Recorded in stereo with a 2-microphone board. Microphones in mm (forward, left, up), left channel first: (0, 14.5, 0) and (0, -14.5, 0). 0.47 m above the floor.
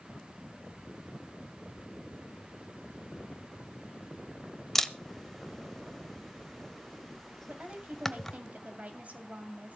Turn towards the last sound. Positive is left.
turn(degrees=-55)  # may be behind; listen again after turning